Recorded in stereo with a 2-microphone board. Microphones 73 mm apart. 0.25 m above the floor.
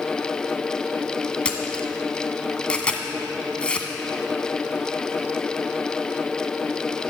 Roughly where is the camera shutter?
Centre.